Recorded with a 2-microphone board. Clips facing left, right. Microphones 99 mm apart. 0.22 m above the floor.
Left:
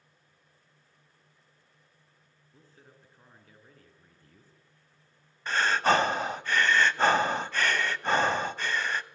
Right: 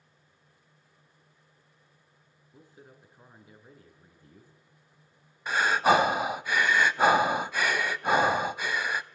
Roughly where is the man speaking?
Centre.